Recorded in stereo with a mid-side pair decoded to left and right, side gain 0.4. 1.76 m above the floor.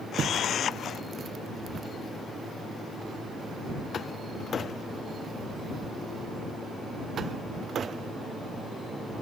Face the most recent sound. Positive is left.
turn(degrees=65)